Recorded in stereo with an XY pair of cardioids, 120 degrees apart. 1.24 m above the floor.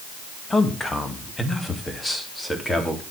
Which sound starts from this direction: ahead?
A man speaking, at 0.5 s.